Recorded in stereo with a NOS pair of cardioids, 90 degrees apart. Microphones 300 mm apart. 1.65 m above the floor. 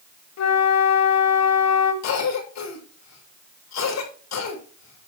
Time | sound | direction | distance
0.4 | a flute | 60° left | 2 m
2.0 | a cough | 65° left | 7 m